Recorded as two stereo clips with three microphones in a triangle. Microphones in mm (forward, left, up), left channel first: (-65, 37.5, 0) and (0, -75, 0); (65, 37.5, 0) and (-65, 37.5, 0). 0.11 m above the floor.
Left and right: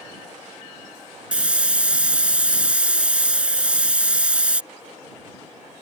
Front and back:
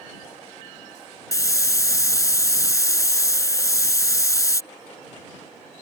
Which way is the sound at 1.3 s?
10° left.